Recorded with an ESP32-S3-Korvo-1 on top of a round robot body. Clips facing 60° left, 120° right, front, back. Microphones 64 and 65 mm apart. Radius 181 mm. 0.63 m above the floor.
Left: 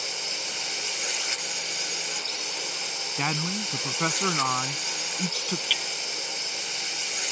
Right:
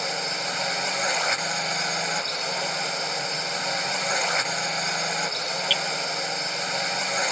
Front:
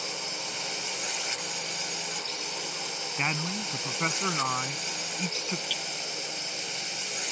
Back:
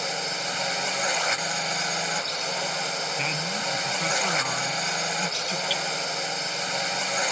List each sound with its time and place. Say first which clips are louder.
0.0 s a drone: right 7 dB, back 7 dB; 155° right
3.2 s a man speaking: even, back 2 dB; 60° left
5.7 s hammering: right 5 dB, back 8 dB; 145° left